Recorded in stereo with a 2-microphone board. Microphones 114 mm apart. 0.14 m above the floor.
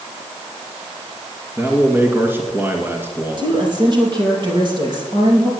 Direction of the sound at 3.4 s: 40° right (ahead or behind).